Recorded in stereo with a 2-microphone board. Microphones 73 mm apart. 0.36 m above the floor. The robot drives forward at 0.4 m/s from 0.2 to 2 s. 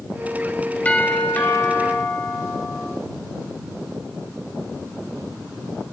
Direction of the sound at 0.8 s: 20° left (ahead or behind).